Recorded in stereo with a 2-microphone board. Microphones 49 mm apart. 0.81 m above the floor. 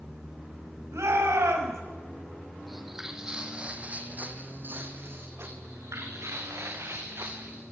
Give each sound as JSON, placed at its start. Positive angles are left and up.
{"t": 0.9, "sound": "a shout", "side_deg": -80, "distance_m": 6.0}
{"t": 2.7, "sound": "footsteps", "side_deg": 0, "distance_m": 2.0}
{"t": 5.6, "sound": "footsteps", "side_deg": -80, "distance_m": 4.0}